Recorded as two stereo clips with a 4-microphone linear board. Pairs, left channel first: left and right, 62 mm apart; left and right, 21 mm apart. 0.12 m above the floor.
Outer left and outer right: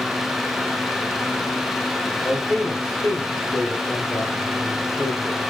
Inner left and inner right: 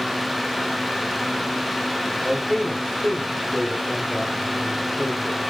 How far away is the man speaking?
About 3.5 m.